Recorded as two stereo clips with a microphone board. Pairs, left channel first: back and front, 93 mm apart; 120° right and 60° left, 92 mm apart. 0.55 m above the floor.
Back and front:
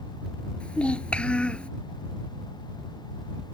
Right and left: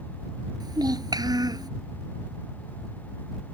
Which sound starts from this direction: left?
A child speaking, at 0.6 s.